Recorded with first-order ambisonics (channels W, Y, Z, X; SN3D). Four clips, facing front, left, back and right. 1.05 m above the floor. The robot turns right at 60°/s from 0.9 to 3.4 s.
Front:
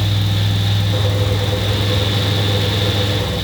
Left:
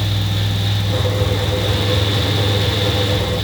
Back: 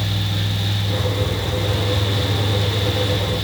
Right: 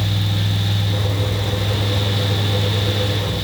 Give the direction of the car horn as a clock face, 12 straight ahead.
I don't hear a car horn.